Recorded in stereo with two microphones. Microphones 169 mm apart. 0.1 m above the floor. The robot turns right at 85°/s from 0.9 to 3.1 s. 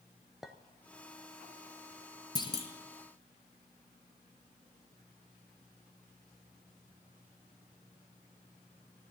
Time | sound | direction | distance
0.4 | a clink | 5° right (ahead or behind) | 0.8 m
2.4 | a clunk | 35° left | 1.1 m